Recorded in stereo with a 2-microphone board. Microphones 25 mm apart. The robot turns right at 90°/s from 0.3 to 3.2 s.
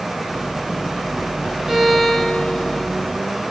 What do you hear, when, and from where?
1.7 s a violin: 20° right, 1.4 m; by 2.9 s 85° left, 1.4 m